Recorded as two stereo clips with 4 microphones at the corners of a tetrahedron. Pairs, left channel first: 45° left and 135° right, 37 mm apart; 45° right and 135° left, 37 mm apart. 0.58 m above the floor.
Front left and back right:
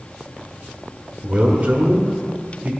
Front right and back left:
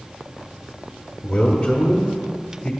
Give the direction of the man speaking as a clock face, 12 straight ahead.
4 o'clock.